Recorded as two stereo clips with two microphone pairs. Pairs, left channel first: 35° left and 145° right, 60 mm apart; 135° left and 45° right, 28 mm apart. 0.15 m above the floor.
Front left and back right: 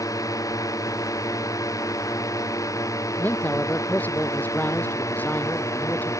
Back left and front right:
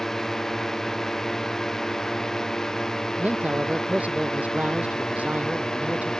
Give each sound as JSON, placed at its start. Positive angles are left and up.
{"t": 0.0, "sound": "a drone", "azimuth_deg": 60}
{"t": 3.2, "sound": "a man speaking", "azimuth_deg": -25}